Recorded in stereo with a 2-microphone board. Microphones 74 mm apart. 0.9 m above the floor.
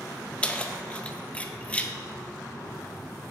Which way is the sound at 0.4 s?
15° left (ahead or behind).